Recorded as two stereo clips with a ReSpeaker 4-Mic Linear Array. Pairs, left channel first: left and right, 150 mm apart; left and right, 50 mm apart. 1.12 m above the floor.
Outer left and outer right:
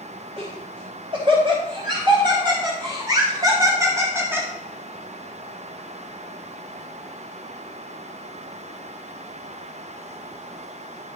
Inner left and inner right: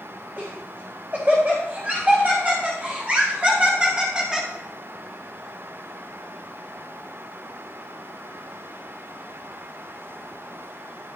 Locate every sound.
0.4 s laughter: 40° right (ahead or behind), 5 m; by 4.5 s 10° right (ahead or behind), 1.8 m